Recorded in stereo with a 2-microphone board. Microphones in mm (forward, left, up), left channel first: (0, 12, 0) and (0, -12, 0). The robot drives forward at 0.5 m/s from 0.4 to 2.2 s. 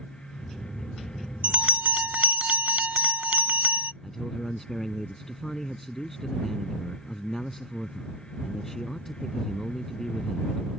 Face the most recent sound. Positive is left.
turn(degrees=15)  # may be behind; listen again after turning